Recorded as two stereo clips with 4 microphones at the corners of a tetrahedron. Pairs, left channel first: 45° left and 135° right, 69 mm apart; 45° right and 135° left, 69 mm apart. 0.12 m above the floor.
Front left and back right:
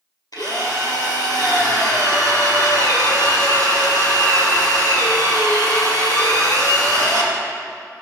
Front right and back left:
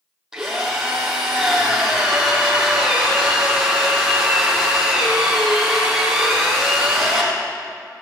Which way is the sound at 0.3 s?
50° left.